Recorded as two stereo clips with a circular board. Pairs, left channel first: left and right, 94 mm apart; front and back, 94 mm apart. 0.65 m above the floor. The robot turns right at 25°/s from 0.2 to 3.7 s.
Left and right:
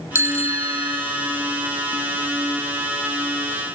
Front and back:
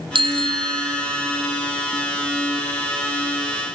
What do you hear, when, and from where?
0.1 s a bicycle bell: 150° right; by 1.4 s 120° right